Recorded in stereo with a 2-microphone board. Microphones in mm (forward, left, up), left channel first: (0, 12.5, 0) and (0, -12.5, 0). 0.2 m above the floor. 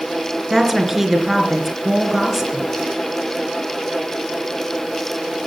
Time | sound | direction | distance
0.5 | a woman speaking | 10° right (ahead or behind) | 2.5 m